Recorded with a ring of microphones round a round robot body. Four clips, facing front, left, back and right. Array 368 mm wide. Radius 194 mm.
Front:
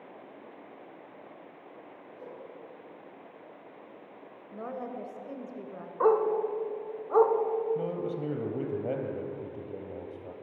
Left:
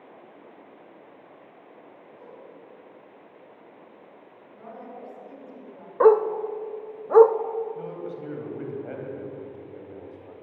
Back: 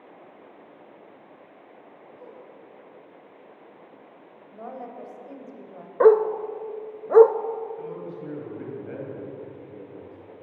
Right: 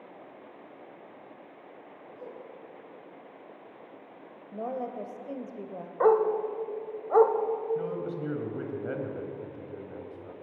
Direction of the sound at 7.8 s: 25° right.